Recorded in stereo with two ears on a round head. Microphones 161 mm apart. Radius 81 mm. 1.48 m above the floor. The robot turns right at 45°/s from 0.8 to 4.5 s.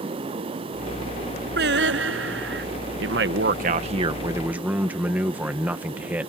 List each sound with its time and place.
1.6 s singing: 110° right; by 2.7 s 60° right
3.0 s a man speaking: 75° right; by 6.3 s 10° right